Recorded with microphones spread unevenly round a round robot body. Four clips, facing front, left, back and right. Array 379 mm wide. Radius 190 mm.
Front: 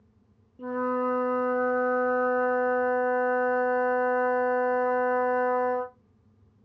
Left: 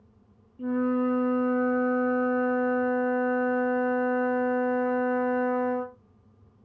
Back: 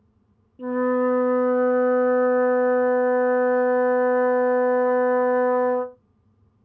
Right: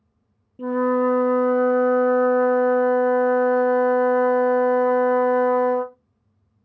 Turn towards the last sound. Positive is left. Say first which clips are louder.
# right 6 dB, back 6 dB
turn(degrees=-70)